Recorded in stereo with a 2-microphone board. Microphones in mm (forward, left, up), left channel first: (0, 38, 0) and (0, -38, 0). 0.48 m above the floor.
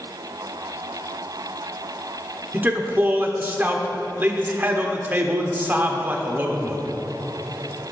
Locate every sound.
2.5 s a man speaking: 25° right (ahead or behind), 1.0 m